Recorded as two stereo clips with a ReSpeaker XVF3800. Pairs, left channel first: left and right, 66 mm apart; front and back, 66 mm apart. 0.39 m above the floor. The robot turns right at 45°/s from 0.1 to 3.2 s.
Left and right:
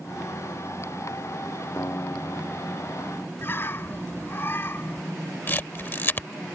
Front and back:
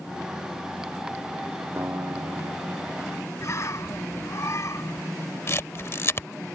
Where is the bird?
35° left.